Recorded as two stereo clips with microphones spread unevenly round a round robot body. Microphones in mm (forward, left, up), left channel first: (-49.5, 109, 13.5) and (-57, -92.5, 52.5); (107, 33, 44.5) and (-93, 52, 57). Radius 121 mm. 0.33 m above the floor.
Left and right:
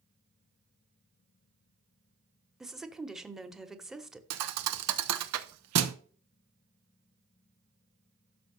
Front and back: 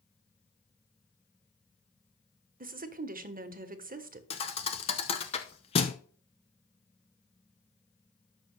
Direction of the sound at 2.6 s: 165° left.